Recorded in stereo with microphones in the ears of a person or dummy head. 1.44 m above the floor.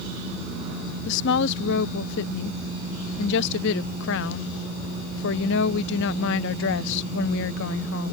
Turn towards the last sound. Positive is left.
turn(degrees=65)  # may be behind; listen again after turning